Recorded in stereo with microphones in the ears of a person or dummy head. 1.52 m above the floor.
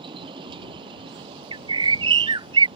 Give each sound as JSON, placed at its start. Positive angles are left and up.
{"t": 0.0, "sound": "a vehicle", "side_deg": -25}
{"t": 1.5, "sound": "a bird", "side_deg": -25}